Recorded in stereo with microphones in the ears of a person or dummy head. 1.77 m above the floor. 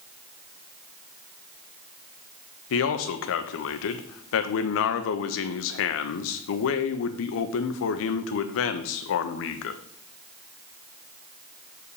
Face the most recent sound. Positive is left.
turn(degrees=75)  # may be behind; listen again after turning